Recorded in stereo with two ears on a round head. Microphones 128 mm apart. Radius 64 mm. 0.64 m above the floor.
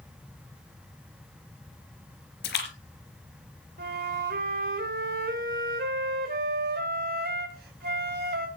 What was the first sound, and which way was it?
A splash, 80° left.